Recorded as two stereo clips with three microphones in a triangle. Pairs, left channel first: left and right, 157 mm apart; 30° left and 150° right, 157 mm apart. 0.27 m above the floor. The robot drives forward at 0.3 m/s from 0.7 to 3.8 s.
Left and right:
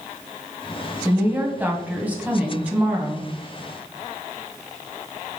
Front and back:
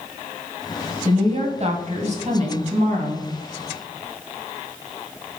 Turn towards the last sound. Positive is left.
turn(degrees=-170)